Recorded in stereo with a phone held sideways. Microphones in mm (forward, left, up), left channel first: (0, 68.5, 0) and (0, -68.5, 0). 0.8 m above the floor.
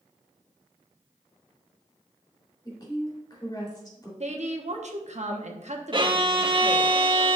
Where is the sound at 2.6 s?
30° left (ahead or behind), 3 m.